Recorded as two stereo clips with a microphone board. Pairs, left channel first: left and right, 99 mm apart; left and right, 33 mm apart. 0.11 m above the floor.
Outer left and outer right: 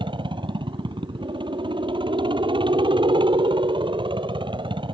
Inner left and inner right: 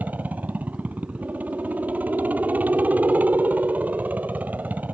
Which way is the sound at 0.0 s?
55° right (ahead or behind).